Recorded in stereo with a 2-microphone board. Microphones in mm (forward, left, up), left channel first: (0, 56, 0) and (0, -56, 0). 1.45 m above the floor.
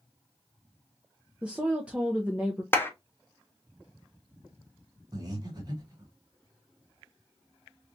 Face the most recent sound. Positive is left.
turn(degrees=-35)  # may be behind; listen again after turning